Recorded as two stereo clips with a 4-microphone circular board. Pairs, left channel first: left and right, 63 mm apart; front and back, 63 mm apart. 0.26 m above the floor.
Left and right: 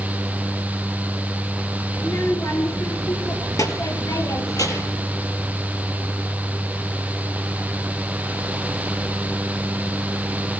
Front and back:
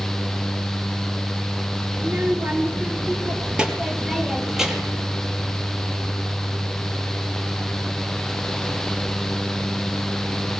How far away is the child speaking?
About 3 m.